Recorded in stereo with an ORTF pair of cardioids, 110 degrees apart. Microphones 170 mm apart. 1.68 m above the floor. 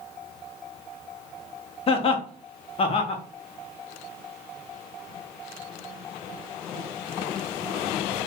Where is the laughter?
35° left, 0.8 m.